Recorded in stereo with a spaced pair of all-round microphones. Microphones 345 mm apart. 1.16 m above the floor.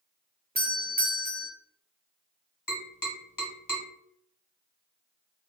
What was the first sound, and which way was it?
A doorbell, 25° right (ahead or behind).